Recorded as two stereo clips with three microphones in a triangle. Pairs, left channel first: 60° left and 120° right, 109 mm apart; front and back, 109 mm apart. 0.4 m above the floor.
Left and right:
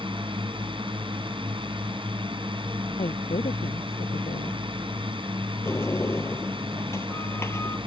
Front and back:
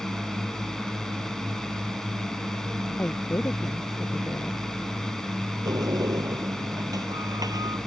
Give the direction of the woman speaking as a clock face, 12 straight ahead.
10 o'clock.